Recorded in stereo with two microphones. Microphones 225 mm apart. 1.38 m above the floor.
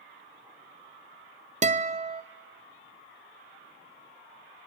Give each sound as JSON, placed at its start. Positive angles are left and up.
{"t": 1.6, "sound": "a guitar", "side_deg": -30, "distance_m": 0.6}